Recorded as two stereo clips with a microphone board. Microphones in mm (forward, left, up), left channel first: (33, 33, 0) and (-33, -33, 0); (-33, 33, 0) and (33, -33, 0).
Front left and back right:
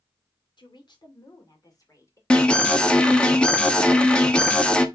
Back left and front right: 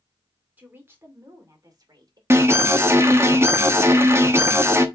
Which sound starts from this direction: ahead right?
An alarm, at 2.3 s.